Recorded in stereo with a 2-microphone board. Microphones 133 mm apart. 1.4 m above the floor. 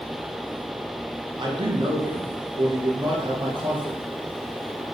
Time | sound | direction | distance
1.4 | a man speaking | 35° right (ahead or behind) | 0.7 m